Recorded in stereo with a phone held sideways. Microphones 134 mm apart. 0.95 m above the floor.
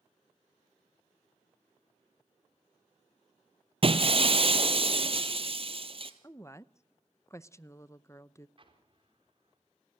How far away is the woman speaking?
About 0.5 m.